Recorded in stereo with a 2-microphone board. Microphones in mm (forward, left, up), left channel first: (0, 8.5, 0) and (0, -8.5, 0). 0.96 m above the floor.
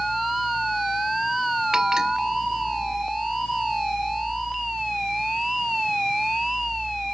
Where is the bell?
35° right (ahead or behind).